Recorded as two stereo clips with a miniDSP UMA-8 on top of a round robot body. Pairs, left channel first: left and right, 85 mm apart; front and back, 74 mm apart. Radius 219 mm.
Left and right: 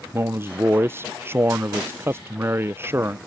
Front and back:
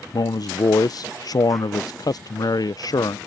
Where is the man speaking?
30° right.